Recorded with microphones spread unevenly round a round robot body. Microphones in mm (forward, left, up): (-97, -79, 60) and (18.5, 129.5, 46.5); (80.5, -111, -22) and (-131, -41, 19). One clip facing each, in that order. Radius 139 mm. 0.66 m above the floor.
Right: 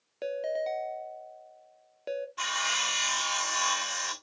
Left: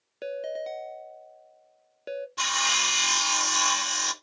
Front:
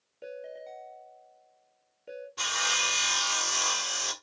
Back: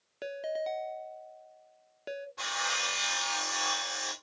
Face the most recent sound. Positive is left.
turn(degrees=30)